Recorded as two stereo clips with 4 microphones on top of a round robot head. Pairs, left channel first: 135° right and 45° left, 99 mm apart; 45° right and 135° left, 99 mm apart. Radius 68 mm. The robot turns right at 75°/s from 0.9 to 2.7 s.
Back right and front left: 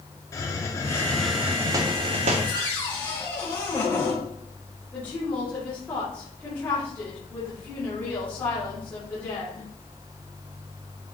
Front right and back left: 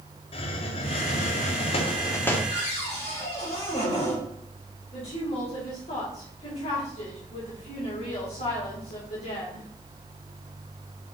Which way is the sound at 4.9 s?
65° right.